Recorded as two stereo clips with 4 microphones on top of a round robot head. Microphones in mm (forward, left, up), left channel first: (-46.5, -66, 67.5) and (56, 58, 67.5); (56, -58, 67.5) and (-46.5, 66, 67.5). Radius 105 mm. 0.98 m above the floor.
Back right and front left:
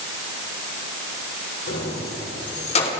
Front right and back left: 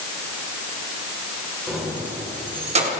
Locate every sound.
1.7 s keys jangling: 140° right, 2.5 m; by 3.0 s 170° left, 1.9 m